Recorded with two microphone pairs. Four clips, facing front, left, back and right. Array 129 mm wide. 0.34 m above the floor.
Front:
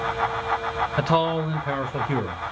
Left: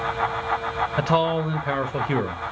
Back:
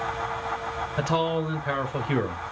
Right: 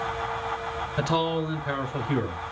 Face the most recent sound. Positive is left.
turn(degrees=120)